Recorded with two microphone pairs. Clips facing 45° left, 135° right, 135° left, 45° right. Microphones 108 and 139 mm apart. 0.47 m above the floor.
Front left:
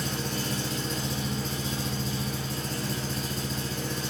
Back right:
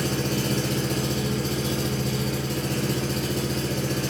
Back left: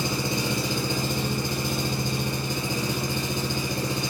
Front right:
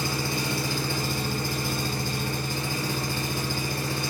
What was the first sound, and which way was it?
An engine running, 155° right.